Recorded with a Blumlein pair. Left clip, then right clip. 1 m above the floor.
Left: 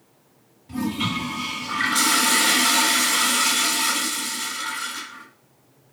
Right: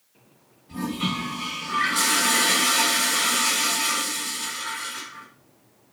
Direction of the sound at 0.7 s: 25° left.